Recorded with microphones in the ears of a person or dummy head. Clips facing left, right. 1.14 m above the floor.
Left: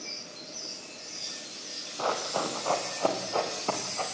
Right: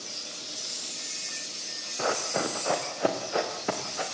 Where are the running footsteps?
25° right (ahead or behind), 4 m; by 4.0 s 20° right (ahead or behind), 5 m.